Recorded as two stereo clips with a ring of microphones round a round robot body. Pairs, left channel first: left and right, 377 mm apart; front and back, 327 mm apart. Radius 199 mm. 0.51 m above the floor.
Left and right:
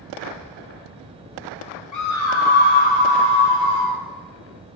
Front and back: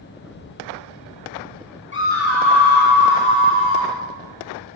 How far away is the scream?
About 1.3 m.